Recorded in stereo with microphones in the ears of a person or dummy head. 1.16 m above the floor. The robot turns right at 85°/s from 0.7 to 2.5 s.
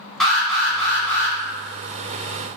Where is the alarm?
5° left (ahead or behind), 1.0 m; by 1.4 s 20° left (ahead or behind), 1.0 m.